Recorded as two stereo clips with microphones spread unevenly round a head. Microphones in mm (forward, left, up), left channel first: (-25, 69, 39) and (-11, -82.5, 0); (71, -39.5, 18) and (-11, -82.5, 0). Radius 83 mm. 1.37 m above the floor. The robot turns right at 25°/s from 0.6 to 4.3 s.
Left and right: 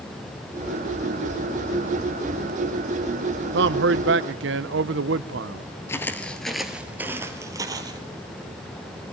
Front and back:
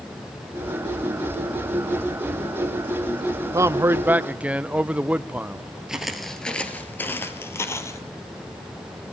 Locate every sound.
3.5 s a man speaking: 95° right, 0.7 m; by 5.7 s 75° right, 0.7 m
5.9 s footsteps: 110° left, 1.5 m; by 8.0 s 10° right, 2 m